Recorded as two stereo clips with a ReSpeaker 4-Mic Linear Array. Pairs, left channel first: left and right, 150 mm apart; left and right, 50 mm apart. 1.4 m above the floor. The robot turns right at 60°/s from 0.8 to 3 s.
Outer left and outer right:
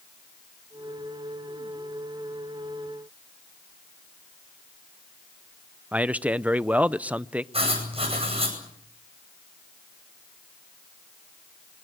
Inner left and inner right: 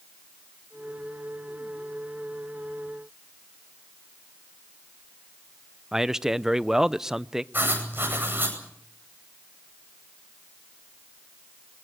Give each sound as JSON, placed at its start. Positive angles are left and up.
{"t": 5.9, "sound": "a man speaking", "side_deg": -10, "distance_m": 0.6}
{"t": 7.5, "sound": "writing", "side_deg": -40, "distance_m": 9.5}